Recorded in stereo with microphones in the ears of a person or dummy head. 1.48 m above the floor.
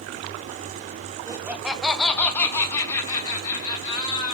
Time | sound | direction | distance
1.3 | laughter | 15° right (ahead or behind) | 0.6 m